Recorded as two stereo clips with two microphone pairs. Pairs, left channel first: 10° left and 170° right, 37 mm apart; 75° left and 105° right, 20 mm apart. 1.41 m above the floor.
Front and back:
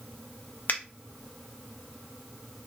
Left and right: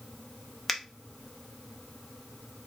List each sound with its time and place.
0.7 s a finger snap: 10° right, 0.7 m